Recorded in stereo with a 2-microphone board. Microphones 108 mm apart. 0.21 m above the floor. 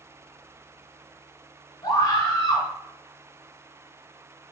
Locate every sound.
1.8 s a scream: 40° left (ahead or behind), 1.6 m